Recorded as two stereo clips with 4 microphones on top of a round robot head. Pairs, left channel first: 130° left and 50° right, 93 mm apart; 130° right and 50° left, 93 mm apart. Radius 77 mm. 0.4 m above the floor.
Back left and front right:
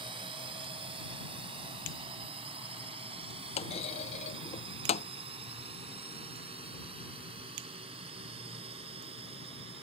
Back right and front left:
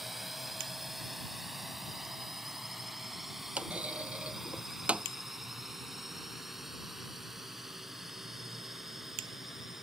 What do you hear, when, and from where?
0.0 s a drone: 35° right
3.6 s a clunk: 130° left